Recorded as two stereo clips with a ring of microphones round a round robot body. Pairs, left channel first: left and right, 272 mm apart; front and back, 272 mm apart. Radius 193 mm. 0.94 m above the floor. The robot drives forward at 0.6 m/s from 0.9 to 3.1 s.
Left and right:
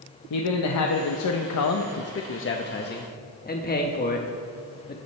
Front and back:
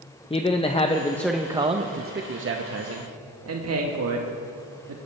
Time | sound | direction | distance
0.3 | a man speaking | 70° left | 0.8 m